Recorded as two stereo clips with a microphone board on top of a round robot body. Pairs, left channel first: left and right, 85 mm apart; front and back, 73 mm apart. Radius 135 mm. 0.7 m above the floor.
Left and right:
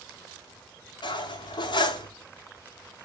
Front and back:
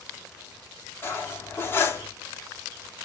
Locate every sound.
1.0 s cutlery clinking: 60° left, 0.8 m